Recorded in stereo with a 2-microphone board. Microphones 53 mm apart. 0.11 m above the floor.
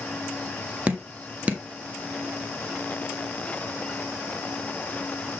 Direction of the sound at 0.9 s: 25° right (ahead or behind).